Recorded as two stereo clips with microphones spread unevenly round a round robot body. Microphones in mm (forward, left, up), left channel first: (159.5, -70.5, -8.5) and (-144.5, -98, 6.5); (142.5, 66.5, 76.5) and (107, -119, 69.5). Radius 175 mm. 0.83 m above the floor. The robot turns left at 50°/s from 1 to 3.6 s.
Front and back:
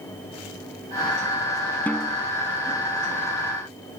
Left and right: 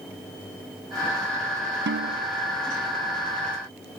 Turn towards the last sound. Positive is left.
turn(degrees=-165)